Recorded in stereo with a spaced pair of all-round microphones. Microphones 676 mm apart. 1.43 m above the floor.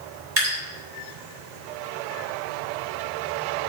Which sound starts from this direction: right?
Dripping, at 0.4 s.